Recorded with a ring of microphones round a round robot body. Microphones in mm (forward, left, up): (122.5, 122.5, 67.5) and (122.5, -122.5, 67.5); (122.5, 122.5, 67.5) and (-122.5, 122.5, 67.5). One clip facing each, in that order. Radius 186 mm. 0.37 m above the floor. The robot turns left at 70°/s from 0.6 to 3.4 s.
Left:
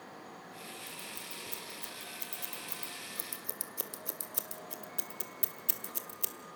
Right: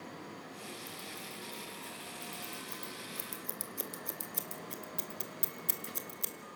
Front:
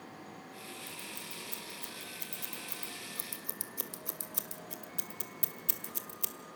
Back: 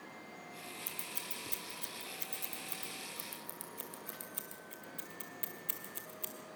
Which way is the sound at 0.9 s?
175° right.